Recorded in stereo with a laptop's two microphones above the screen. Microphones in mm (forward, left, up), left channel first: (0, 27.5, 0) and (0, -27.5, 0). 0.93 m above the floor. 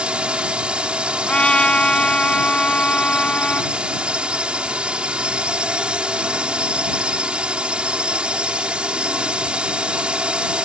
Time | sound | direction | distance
0.0 | a drone | 20° right (ahead or behind) | ?
1.2 | a trumpet | 20° left (ahead or behind) | ?